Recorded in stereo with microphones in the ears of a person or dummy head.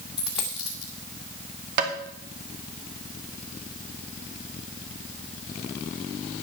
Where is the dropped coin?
Centre (ahead or behind), 0.8 m.